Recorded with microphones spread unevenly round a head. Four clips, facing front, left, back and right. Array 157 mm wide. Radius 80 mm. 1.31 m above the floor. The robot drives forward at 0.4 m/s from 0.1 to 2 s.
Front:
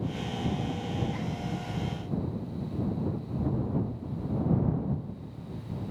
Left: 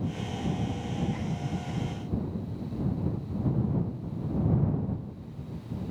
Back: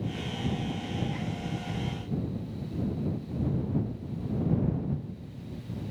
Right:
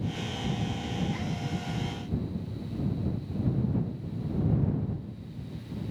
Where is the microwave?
No microwave in this recording.